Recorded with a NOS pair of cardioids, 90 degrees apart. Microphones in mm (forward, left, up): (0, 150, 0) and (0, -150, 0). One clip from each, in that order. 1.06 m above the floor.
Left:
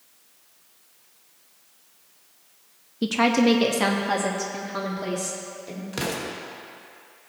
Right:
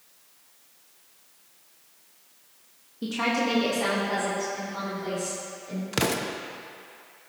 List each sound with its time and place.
3.0 s a woman speaking: 50° left, 0.9 m; by 5.8 s 70° left, 2.5 m
5.9 s an explosion: 30° right, 0.9 m